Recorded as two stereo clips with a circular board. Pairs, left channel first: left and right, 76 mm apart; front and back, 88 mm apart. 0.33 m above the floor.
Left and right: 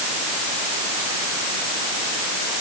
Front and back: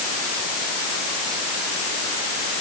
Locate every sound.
Only background noise.